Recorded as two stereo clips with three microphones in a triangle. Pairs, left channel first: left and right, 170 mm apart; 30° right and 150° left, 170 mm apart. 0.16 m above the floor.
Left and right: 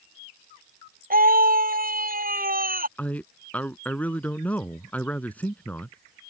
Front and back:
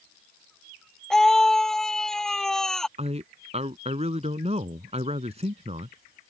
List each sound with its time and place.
1.1 s a scream: 115° right
3.0 s a man speaking: 165° left